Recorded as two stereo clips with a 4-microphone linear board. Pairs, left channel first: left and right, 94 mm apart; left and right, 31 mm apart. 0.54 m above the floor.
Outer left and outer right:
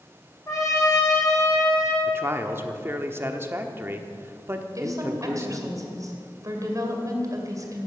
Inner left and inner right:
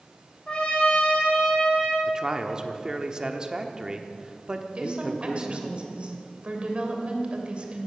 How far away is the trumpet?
About 4 m.